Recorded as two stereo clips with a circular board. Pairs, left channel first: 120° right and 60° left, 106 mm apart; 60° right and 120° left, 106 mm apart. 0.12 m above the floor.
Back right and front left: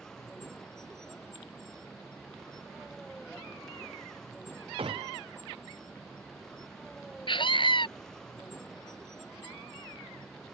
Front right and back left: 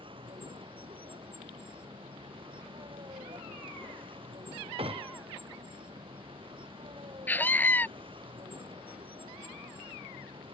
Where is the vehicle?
155° left.